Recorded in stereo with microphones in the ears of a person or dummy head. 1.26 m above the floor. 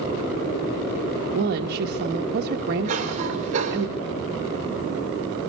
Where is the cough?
40° right (ahead or behind), 4.5 m.